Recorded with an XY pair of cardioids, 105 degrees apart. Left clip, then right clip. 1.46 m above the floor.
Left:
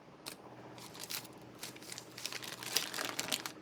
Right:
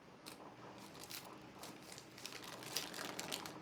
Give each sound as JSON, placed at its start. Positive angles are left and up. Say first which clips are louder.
{"t": 0.3, "sound": "crumpling", "louder": "left 5 dB", "azimuth_deg": 60, "distance_m": 0.5}